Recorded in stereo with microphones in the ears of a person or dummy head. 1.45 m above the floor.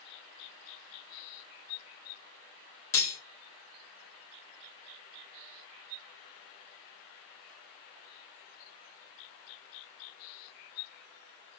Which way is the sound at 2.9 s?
15° left (ahead or behind).